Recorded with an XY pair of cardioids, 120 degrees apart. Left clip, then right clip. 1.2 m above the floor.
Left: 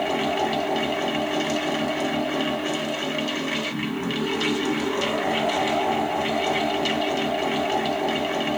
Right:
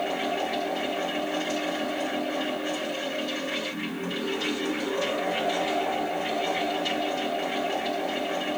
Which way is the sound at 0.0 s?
65° left.